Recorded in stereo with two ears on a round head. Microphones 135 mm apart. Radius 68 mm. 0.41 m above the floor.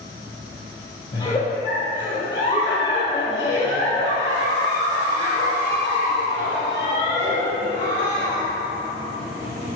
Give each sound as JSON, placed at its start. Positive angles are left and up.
{"t": 1.1, "sound": "a giggle", "side_deg": 30, "distance_m": 2.5}